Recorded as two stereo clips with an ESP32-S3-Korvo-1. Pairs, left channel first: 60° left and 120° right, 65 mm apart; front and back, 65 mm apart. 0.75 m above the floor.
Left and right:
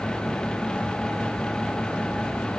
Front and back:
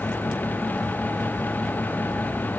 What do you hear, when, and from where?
Only background noise.